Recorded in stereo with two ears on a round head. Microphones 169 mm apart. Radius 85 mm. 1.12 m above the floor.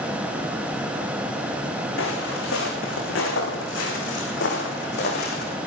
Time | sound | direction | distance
2.0 | footsteps | 75° left (ahead or behind) | 5.5 m